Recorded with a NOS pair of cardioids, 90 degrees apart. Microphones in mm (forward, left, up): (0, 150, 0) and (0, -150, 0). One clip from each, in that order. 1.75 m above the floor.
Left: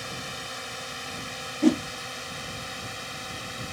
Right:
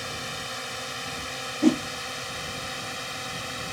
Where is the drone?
15° right; by 3.8 s 20° right.